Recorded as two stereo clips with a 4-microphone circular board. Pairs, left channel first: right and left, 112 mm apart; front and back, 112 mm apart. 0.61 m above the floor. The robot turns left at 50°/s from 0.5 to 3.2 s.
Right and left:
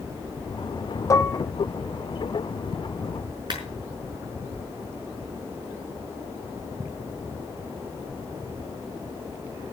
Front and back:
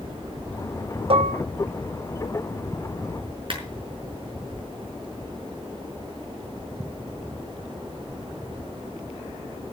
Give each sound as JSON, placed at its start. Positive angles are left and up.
{"t": 1.1, "sound": "dishes clattering", "azimuth_deg": -150, "distance_m": 0.8}
{"t": 3.5, "sound": "a clap", "azimuth_deg": 140, "distance_m": 5.0}